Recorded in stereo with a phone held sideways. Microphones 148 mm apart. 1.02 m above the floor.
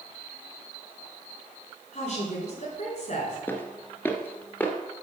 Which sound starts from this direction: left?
A woman speaking, at 1.9 s.